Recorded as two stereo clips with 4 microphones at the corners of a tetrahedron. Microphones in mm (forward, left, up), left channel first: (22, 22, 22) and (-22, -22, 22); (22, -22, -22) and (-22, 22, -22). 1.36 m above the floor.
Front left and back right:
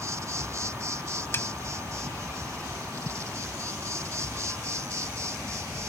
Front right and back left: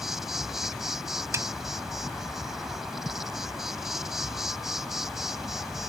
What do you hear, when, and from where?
0.0 s an insect: 140° right
1.3 s a snare drum: 95° left